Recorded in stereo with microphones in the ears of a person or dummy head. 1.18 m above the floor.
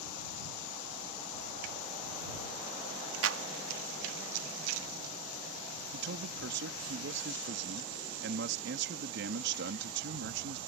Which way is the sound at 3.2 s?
75° right (ahead or behind).